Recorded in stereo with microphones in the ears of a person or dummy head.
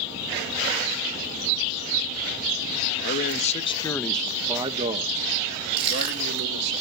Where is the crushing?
30° right (ahead or behind), 1.5 m.